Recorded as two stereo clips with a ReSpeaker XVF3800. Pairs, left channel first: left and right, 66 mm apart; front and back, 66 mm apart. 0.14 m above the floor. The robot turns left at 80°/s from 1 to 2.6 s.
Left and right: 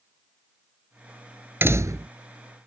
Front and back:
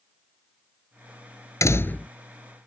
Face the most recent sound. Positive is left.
turn(degrees=-115)